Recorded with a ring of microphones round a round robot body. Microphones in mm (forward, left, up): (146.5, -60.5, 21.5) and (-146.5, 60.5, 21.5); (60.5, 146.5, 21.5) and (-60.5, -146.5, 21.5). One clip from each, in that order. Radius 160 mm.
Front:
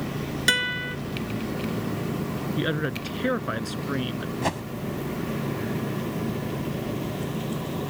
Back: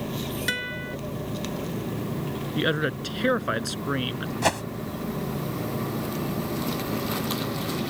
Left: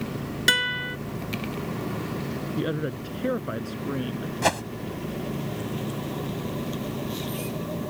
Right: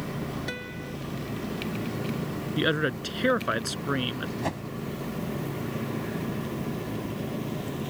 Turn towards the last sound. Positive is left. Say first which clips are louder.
# back 5 dB, left 11 dB
turn(degrees=95)